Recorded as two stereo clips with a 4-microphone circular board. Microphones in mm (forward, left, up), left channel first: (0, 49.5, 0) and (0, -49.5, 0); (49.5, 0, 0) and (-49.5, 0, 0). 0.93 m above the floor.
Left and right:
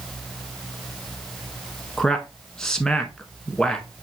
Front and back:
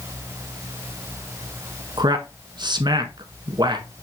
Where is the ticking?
No ticking in this recording.